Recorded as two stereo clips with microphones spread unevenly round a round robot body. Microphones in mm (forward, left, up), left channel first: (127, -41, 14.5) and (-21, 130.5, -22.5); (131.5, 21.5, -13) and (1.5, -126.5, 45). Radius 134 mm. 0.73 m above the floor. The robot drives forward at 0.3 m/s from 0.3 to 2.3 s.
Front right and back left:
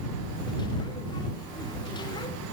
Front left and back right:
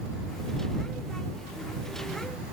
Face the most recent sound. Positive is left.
No sound to turn to.